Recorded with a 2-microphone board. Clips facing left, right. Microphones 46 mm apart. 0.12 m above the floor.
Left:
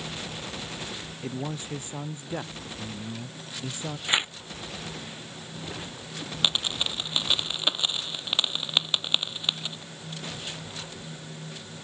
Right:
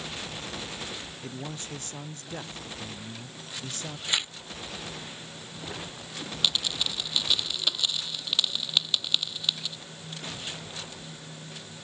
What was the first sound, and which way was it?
A man speaking, 15° left (ahead or behind).